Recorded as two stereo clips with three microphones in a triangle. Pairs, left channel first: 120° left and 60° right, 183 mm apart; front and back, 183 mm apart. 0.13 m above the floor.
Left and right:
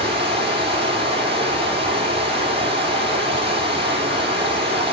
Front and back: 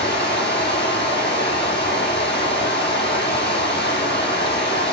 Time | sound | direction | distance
0.0 | running water | straight ahead | 3.5 m